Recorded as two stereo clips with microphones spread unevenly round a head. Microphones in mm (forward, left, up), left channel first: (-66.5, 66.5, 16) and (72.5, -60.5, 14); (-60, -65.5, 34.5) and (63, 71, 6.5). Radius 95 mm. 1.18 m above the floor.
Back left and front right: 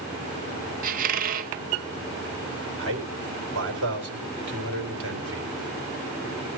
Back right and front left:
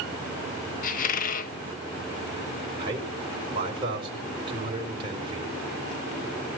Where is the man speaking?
20° right, 4 m.